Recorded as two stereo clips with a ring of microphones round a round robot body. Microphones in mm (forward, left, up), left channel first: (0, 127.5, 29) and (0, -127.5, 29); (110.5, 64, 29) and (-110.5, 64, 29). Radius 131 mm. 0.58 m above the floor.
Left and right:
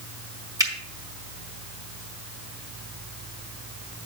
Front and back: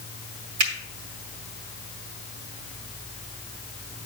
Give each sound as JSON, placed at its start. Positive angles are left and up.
{"t": 0.6, "sound": "a finger snap", "azimuth_deg": -165, "distance_m": 1.9}